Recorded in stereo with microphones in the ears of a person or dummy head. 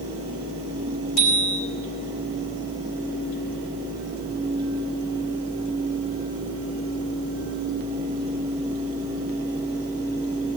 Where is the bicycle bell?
50° left (ahead or behind), 5 m.